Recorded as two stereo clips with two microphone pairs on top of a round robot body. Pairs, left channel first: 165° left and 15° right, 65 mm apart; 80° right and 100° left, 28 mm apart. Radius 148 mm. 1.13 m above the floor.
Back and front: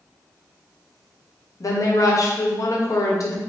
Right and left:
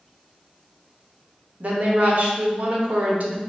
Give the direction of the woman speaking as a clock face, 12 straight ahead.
8 o'clock.